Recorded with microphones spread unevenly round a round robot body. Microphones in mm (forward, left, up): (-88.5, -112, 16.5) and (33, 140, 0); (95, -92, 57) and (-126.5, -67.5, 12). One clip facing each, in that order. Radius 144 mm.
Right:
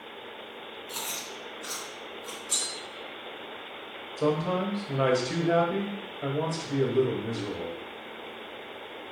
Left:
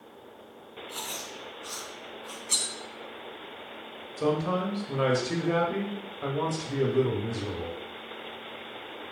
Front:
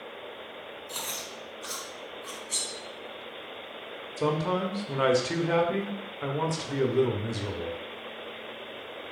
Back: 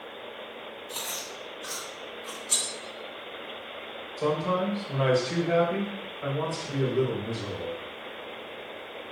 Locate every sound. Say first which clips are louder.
0.9 s chewing: even, back 1 dB; 65° right, 3.5 m
2.5 s cutlery clinking: even, back 1 dB; 140° left, 1.8 m
4.2 s a man speaking: even, back 1 dB; 10° right, 1.4 m